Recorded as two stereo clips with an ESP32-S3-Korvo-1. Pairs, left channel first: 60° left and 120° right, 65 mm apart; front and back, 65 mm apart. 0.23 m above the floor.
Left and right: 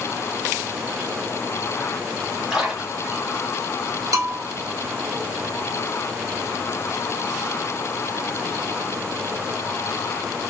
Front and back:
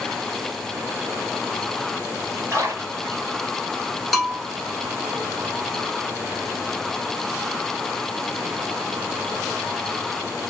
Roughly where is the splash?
Behind.